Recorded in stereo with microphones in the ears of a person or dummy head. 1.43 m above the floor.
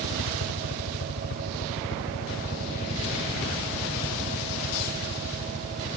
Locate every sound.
0.0 s a helicopter: 70° left (ahead or behind); by 6.0 s 30° left (ahead or behind)